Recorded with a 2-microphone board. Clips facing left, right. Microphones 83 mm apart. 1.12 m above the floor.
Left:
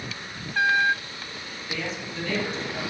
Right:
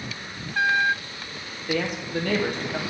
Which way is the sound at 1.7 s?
55° right (ahead or behind).